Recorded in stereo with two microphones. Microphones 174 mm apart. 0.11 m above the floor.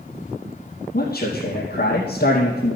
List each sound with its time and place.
0.9 s a man speaking: 60° left (ahead or behind), 3 m